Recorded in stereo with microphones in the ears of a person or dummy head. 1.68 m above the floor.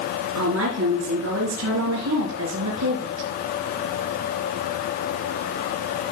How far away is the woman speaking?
About 3.5 m.